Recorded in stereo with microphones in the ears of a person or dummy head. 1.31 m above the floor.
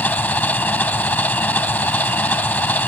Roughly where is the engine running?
Centre.